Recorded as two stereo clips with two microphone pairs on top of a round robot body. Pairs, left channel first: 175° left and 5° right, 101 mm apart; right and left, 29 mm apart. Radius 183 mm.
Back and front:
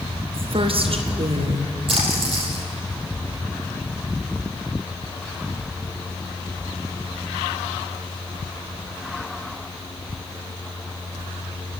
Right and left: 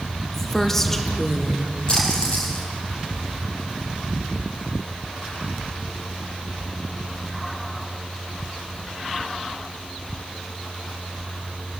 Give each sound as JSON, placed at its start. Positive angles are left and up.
{"t": 0.3, "sound": "a woman speaking", "azimuth_deg": -10, "distance_m": 2.0}
{"t": 1.9, "sound": "a splash", "azimuth_deg": -30, "distance_m": 4.5}